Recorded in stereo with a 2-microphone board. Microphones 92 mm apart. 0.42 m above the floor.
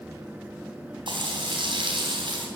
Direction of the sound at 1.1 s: 65° right (ahead or behind).